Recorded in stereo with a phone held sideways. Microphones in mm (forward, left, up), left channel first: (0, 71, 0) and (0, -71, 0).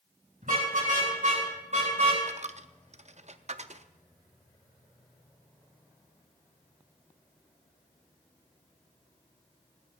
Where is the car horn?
70° right (ahead or behind), 6 m; by 2.2 s 50° right (ahead or behind), 5 m.